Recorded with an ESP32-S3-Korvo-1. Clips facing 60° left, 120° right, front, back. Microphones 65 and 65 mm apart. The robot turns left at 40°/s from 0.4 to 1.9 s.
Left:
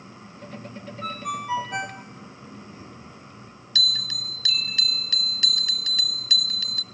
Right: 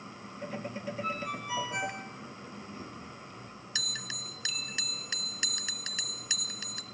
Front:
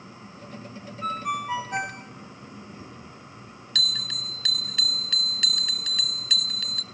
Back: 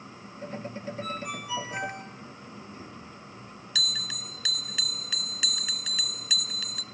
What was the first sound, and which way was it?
A ringtone, 55° left.